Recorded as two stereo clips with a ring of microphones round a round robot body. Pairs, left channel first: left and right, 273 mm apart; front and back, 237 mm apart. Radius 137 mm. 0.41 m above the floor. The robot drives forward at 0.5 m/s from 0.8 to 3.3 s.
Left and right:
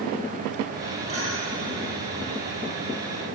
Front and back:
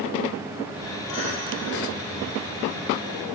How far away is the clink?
About 8.5 m.